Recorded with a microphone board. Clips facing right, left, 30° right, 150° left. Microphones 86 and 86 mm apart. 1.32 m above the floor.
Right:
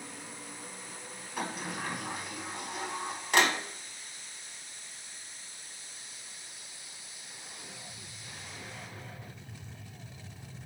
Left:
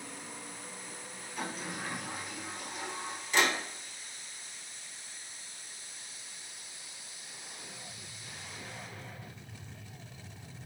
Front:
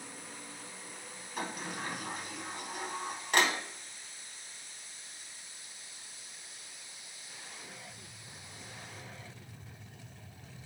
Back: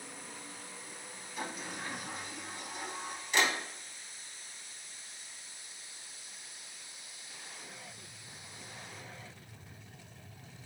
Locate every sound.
1.4 s a sliding door: 60° right, 0.8 m